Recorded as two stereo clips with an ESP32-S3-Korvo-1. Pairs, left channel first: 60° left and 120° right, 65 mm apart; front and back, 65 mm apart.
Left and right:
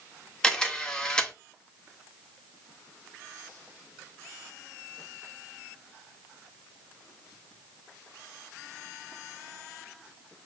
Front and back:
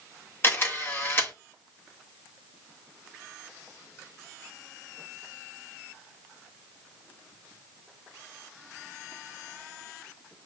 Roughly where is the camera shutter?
Ahead.